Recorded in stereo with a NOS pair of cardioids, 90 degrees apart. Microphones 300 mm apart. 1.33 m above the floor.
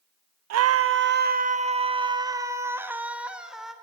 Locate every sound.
0.5 s a scream: 60° right, 0.7 m; by 3.7 s straight ahead, 2 m